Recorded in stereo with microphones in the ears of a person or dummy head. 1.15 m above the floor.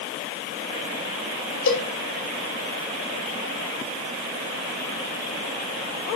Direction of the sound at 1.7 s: 75° left (ahead or behind).